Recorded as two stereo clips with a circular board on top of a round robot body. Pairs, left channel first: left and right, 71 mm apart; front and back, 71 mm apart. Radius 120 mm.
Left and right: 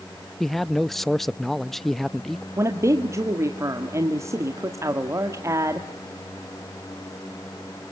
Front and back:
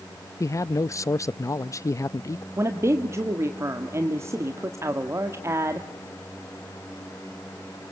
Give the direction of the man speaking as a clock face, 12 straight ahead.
12 o'clock.